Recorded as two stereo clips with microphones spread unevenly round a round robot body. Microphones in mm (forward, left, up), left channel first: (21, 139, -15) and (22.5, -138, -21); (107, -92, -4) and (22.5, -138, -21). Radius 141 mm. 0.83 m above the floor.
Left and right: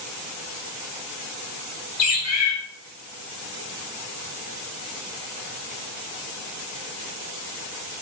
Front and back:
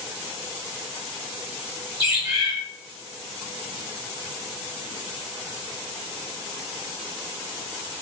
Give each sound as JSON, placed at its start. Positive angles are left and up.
{"t": 2.0, "sound": "a bird", "azimuth_deg": 125, "distance_m": 1.4}